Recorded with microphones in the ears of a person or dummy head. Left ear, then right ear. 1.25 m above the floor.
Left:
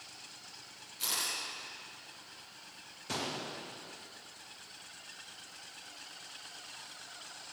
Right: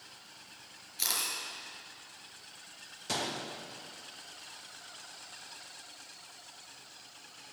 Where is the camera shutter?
55° right (ahead or behind), 5.5 m.